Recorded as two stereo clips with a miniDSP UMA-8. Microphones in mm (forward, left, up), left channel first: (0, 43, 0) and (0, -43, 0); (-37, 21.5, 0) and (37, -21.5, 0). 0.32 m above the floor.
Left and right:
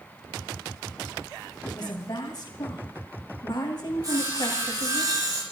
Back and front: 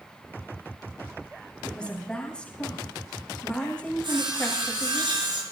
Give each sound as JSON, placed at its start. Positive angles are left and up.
{"t": 1.6, "sound": "a woman speaking", "azimuth_deg": 70, "distance_m": 2.5}
{"t": 4.0, "sound": "sawing", "azimuth_deg": -45, "distance_m": 8.0}